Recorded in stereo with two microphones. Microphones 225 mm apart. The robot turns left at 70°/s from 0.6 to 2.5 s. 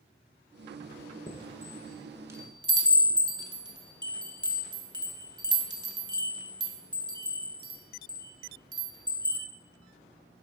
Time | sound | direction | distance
1.3 | a chime | 25° left (ahead or behind) | 0.8 m